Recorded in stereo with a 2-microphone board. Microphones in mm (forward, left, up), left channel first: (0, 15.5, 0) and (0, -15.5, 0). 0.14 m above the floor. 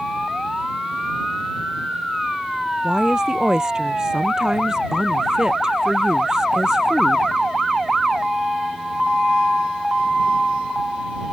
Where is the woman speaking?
25° right (ahead or behind).